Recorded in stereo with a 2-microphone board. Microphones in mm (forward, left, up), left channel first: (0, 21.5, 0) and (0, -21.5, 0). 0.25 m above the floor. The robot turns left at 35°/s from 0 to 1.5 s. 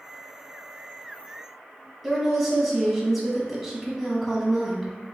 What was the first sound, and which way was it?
A woman speaking, 5° right (ahead or behind).